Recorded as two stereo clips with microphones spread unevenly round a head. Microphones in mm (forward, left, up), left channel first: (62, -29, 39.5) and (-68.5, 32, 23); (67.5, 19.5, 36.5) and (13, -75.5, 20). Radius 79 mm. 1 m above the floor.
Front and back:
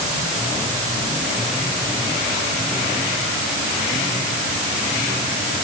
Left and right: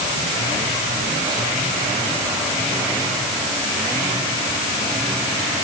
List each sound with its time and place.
Only background noise.